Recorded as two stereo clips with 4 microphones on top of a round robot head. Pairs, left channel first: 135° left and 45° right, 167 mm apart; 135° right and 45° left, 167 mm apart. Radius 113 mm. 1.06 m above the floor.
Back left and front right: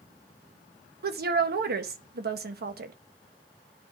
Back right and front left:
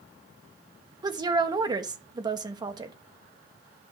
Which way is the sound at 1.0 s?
20° right.